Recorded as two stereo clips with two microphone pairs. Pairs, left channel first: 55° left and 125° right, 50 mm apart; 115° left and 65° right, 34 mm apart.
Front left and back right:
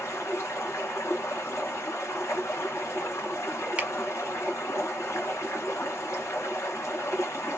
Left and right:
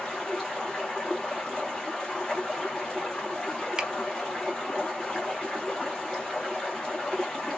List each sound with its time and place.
0.0 s running water: 40° left, 1.7 m
3.8 s a finger snap: 105° right, 0.8 m